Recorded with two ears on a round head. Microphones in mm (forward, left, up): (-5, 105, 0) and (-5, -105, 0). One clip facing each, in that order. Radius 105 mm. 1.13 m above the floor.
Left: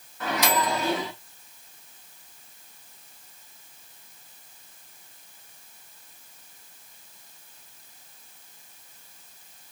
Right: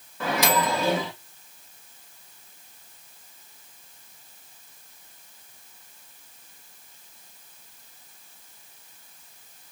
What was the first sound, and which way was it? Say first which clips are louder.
A microwave: right 2 dB; 65° right (ahead or behind).